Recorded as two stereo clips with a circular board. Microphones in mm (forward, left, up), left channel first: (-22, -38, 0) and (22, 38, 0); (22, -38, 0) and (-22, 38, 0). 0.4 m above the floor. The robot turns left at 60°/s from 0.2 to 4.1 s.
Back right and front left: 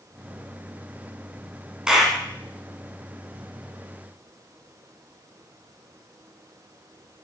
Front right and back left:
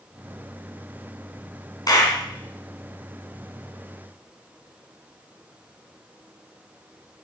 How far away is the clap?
About 2.5 m.